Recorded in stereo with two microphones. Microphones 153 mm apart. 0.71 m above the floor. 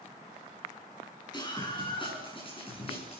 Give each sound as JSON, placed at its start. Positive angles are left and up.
{"t": 1.3, "sound": "a scream", "side_deg": 30, "distance_m": 7.0}